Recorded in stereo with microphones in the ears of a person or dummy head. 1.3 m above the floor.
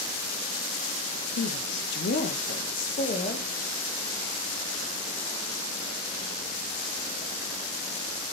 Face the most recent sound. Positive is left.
turn(degrees=30)  # may be behind; listen again after turning